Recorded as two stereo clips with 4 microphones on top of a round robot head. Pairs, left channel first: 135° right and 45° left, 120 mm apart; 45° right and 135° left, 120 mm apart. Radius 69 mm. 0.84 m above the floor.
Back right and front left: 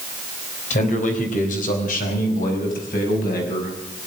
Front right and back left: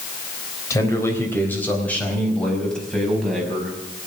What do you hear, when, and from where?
0.7 s a man speaking: 110° right, 3.5 m; by 4.1 s 135° right, 6 m